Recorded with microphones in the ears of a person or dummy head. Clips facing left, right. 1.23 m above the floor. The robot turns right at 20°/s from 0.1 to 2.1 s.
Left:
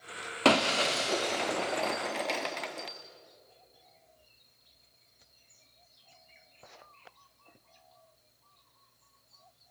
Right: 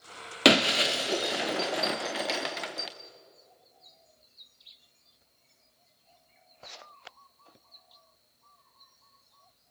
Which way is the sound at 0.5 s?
20° right (ahead or behind).